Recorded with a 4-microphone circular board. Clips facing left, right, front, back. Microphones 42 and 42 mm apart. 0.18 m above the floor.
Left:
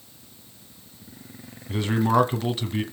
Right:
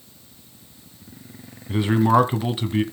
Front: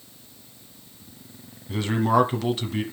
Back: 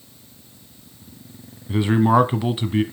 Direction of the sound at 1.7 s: 135° right.